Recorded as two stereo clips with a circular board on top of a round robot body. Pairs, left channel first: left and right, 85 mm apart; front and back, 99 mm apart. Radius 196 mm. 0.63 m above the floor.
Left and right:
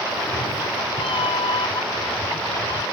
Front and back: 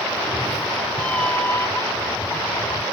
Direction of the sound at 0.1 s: 100° left.